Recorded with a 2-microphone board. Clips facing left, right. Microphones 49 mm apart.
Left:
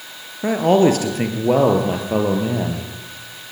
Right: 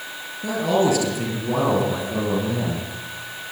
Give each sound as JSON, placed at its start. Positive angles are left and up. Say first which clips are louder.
{"t": 0.4, "sound": "a man speaking", "louder": "left 5 dB", "side_deg": 45, "distance_m": 3.5}